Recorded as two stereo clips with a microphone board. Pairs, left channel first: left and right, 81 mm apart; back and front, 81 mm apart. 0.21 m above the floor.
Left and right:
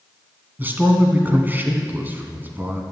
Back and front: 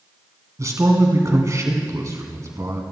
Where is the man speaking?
35° right, 2.0 m.